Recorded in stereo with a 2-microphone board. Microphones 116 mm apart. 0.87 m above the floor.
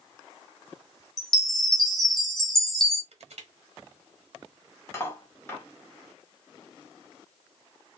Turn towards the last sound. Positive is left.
turn(degrees=20)  # may be behind; listen again after turning